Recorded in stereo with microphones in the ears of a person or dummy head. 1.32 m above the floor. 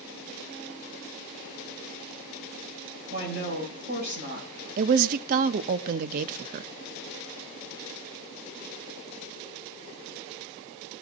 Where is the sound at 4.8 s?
45° right (ahead or behind), 0.5 m.